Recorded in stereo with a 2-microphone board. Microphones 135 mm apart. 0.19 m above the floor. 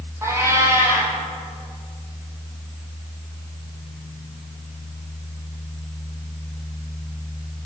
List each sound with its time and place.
0.2 s a cat meowing: 20° right (ahead or behind), 2.5 m